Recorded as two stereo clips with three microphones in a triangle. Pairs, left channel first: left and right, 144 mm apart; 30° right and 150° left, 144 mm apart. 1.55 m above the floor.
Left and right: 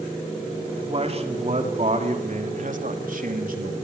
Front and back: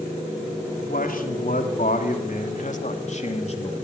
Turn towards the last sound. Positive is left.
turn(degrees=-75)